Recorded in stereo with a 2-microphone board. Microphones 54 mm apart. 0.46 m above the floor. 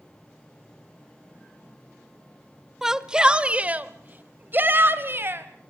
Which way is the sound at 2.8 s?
5° right (ahead or behind).